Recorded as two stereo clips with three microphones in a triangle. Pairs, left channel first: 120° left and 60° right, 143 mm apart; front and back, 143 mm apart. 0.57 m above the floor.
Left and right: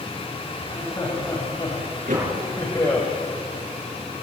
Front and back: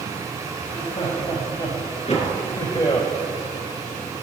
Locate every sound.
0.6 s laughter: 60° left, 4 m; by 3.1 s 55° left, 3 m
2.1 s a door slam: 40° right, 6.5 m